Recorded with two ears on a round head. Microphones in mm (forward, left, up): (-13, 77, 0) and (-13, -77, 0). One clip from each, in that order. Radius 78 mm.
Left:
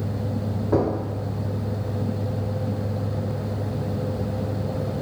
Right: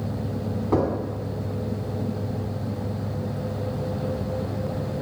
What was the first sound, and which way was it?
Knocking, 50° right (ahead or behind).